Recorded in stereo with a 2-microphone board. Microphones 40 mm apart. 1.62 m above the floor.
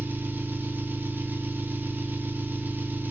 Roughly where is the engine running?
Right.